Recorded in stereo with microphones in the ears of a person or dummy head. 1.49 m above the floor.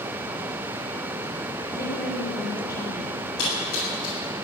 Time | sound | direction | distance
1.7 | a woman speaking | 20° left (ahead or behind) | 4.5 m
3.4 | a splash | 85° left | 7.5 m